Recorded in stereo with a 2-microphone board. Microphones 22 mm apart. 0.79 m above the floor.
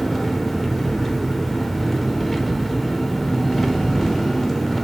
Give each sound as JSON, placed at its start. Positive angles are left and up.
{"t": 0.0, "sound": "an engine running", "side_deg": 10, "distance_m": 1.2}